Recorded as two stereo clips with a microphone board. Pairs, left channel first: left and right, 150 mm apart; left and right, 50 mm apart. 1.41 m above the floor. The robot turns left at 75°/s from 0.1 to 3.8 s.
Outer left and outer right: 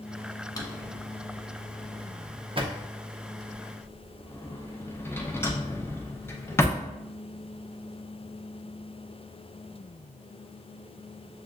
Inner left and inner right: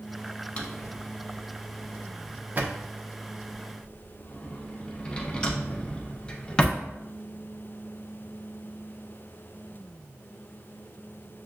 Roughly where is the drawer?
Left.